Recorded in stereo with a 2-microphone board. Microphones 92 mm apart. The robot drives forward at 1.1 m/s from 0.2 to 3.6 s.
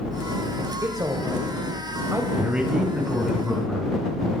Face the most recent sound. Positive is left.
turn(degrees=-10)  # may be behind; listen again after turning